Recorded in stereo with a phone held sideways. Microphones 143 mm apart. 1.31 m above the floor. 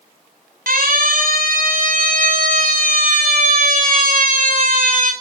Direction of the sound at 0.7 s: 90° right.